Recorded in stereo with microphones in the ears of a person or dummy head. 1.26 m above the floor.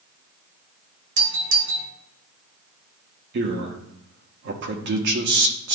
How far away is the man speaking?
About 1.0 m.